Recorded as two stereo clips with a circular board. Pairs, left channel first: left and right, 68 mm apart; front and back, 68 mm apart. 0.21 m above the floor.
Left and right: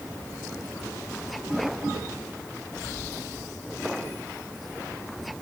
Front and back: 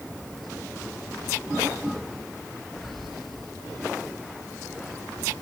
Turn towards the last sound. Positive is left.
No sound to turn to.